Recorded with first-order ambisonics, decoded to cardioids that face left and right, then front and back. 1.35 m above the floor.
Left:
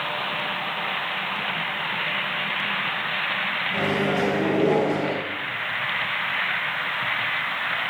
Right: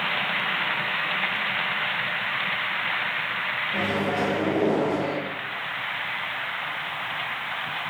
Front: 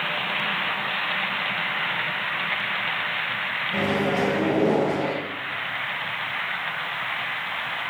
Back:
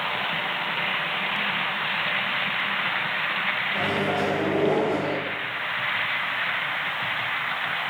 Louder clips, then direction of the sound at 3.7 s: Left 2 dB, front 1 dB; 15° left.